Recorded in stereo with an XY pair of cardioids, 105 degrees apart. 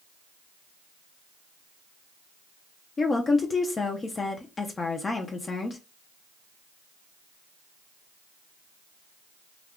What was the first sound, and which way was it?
A woman speaking, 35° left.